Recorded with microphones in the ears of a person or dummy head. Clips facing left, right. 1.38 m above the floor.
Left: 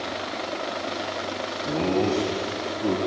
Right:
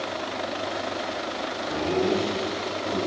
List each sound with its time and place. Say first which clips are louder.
1.6 s laughter: left 1 dB; 60° left (ahead or behind), 2.5 m